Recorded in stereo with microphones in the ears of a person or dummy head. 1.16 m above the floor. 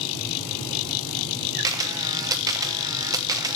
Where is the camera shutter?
10° right (ahead or behind), 0.6 m.